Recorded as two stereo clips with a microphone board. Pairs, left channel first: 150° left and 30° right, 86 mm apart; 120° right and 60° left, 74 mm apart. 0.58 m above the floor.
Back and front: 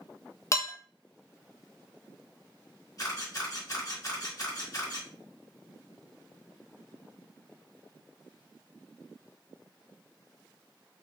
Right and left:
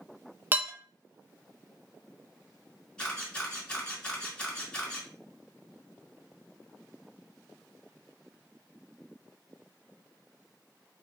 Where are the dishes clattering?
110° left, 0.5 m.